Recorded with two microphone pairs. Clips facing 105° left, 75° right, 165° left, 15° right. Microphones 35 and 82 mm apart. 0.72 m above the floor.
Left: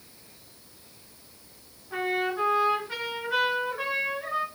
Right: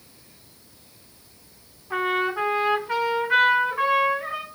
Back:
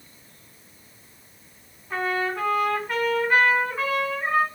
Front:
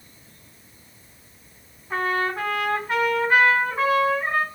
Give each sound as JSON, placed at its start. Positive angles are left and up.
{"t": 1.9, "sound": "a trumpet", "azimuth_deg": -85, "distance_m": 2.0}